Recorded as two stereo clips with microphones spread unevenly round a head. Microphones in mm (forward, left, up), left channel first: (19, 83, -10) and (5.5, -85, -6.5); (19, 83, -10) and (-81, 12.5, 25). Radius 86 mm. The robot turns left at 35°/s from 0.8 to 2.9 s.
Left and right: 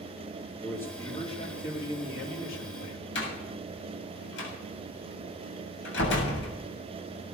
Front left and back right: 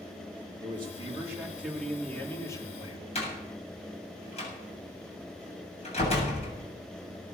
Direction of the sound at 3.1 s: 70° left.